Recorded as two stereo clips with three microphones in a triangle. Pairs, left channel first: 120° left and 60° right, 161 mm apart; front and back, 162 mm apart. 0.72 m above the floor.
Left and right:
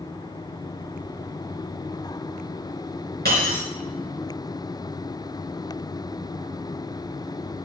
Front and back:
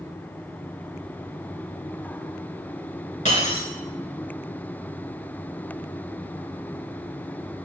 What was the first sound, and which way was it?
Breaking glass, 45° right.